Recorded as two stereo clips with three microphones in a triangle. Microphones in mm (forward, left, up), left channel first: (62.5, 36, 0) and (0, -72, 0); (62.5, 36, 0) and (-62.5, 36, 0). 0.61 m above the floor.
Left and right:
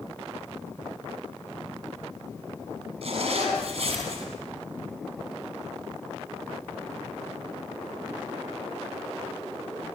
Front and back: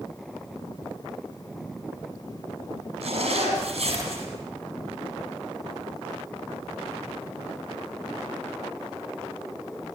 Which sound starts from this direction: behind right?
A zipper, at 3.0 s.